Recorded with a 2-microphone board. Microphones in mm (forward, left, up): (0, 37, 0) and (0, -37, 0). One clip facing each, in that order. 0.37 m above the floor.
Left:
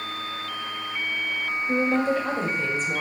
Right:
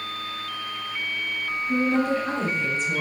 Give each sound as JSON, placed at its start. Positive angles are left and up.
{"t": 1.7, "sound": "a woman speaking", "side_deg": 45, "distance_m": 1.5}